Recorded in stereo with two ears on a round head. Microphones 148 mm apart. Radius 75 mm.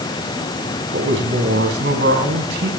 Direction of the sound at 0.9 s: 75° right (ahead or behind).